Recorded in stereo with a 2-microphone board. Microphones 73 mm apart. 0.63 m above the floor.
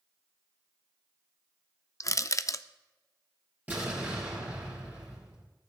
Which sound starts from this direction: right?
An explosion, at 3.7 s.